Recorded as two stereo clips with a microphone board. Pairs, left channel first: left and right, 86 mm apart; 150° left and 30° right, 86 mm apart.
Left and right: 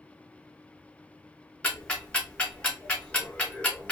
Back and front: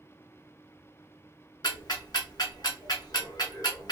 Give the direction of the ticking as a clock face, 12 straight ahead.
7 o'clock.